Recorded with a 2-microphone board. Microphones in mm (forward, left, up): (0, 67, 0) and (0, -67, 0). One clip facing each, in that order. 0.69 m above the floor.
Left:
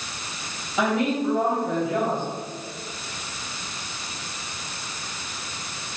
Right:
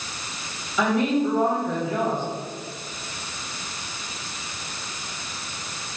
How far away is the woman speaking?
About 3.5 m.